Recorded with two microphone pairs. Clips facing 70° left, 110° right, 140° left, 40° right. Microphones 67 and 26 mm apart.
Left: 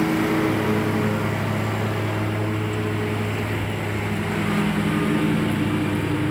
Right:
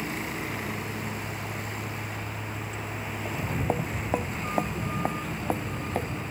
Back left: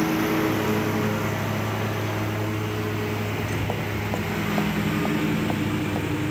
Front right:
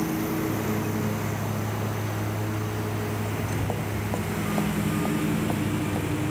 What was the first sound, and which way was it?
A lawn mower, 85° left.